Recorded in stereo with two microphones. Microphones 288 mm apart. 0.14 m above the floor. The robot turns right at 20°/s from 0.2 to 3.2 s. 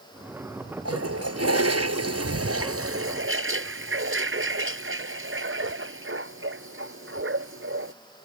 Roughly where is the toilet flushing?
Right.